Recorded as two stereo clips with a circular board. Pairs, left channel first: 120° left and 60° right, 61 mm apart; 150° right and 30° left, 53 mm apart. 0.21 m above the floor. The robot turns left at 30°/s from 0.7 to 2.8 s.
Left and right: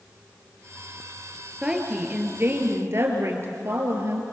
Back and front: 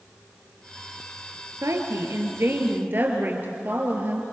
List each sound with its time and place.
1.6 s a woman speaking: 15° left, 3 m; by 4.2 s 20° right, 3 m